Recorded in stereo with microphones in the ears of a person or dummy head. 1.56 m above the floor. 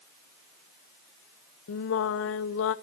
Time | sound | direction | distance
1.7 | singing | 70° left (ahead or behind) | 0.8 m